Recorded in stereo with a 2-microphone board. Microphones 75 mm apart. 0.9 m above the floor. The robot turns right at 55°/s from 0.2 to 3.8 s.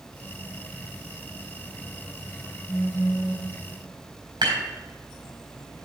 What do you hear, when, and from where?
2.7 s a phone buzzing: 65° left, 1.5 m; by 3.5 s 110° left, 1.5 m
4.4 s dishes clattering: 85° right, 4 m